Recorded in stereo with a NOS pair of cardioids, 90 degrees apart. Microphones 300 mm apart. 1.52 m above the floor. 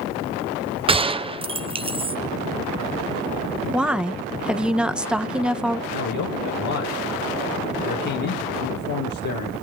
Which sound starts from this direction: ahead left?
A man speaking, at 5.9 s.